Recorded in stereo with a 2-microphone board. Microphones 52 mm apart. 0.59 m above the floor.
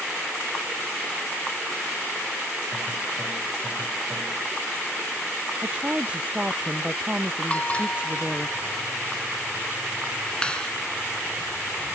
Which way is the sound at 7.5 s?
25° left (ahead or behind).